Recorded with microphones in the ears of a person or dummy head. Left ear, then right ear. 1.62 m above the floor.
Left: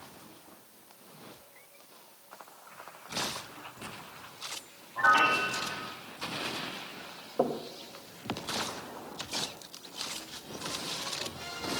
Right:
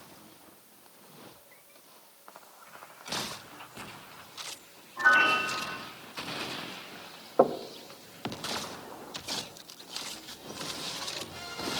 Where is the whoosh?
No whoosh in this recording.